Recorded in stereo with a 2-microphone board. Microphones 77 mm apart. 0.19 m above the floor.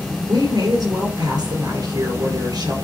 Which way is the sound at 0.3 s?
60° right (ahead or behind).